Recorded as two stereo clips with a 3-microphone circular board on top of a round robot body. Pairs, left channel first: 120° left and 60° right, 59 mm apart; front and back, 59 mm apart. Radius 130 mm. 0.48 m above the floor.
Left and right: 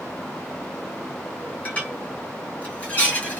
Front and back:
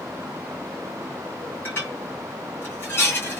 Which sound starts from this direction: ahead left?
Dishes clattering, at 1.6 s.